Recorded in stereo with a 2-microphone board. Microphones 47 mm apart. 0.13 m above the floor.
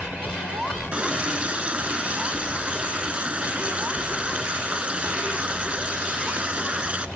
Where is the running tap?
30° right (ahead or behind), 0.9 m.